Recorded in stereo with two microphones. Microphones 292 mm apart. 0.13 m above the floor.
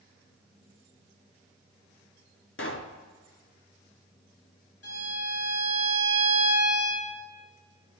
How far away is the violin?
About 2.5 m.